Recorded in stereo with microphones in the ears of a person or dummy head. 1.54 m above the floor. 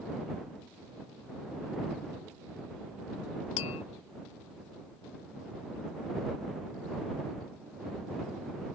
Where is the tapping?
40° left (ahead or behind).